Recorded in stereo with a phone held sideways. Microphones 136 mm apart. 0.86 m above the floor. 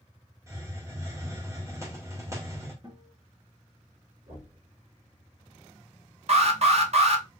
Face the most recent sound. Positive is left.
turn(degrees=-50)  # may be behind; listen again after turning